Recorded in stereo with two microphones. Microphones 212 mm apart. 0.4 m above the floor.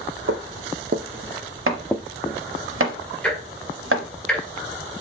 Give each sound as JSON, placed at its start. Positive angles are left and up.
{"t": 0.3, "sound": "footsteps", "side_deg": -70, "distance_m": 0.9}
{"t": 1.7, "sound": "chopping", "side_deg": -80, "distance_m": 0.8}
{"t": 3.2, "sound": "ticking", "side_deg": 5, "distance_m": 1.4}